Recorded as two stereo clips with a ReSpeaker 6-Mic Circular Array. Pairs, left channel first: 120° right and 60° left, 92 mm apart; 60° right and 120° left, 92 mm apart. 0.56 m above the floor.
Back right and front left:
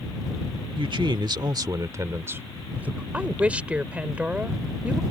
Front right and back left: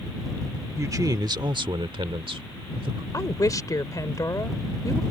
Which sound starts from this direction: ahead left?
A man speaking, at 0.8 s.